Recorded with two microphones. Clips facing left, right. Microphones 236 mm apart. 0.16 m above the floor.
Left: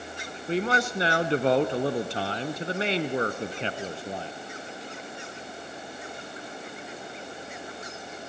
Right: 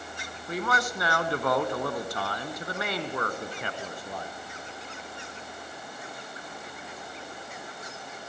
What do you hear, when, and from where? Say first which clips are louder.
0.5 s a man speaking: left 5 dB; 30° left (ahead or behind), 1.3 m